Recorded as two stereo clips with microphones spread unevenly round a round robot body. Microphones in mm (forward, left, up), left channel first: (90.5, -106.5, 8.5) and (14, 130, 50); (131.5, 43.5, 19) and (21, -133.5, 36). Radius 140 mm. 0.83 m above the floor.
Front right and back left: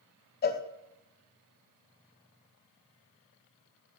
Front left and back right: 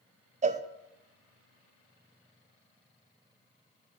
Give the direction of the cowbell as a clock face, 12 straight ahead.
2 o'clock.